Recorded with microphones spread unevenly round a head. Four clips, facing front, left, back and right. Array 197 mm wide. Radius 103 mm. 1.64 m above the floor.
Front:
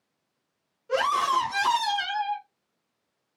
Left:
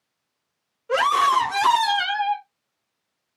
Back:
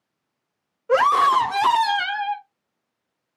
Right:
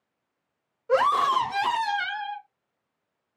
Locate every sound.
0.9 s a scream: straight behind, 1.0 m; by 2.5 s 130° left, 0.9 m